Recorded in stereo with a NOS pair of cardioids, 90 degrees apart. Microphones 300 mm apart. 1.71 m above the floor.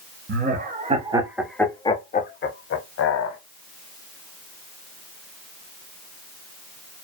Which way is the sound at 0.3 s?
35° right.